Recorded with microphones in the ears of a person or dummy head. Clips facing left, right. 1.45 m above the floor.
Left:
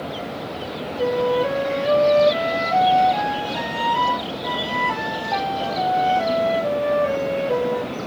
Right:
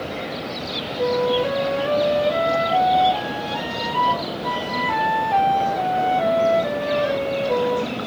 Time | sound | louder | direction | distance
1.0 | a flute | even | 5° left (ahead or behind) | 4.5 m